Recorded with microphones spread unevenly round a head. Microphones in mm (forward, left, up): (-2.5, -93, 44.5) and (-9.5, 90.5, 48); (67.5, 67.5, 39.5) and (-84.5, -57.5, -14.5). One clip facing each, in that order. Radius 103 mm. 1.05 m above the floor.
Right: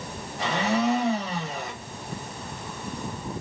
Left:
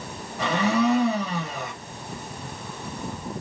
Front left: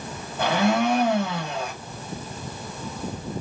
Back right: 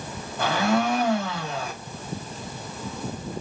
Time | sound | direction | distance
0.4 | a blender | 110° left | 1.6 m